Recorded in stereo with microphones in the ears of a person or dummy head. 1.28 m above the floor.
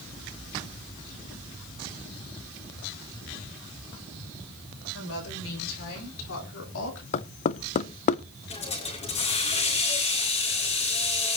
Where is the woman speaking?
80° left, 6.5 m; by 7.0 s 70° left (ahead or behind), 3.5 m.